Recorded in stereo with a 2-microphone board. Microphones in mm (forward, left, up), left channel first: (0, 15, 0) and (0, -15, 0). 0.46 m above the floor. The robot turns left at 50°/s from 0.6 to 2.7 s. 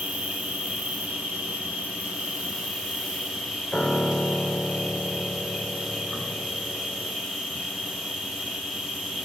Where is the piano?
20° left (ahead or behind), 1.5 m.